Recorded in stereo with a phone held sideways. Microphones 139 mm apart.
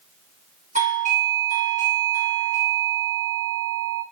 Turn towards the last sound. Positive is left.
turn(degrees=-60)  # may be behind; listen again after turning